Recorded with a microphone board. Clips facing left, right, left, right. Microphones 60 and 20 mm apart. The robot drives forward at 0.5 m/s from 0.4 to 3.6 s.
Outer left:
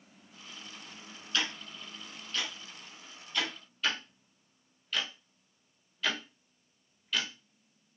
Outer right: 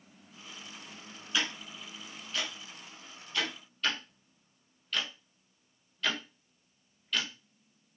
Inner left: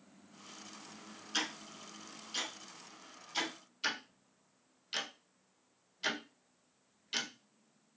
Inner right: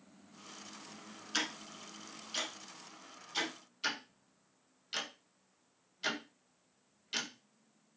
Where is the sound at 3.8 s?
Centre (ahead or behind), 0.6 m.